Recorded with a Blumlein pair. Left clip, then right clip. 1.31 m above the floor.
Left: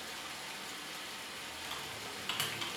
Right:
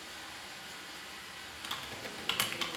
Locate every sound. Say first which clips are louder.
0.0 s running water: left 2 dB; 55° left, 0.7 m
1.6 s typing on a keyboard: right 4 dB; 15° right, 0.5 m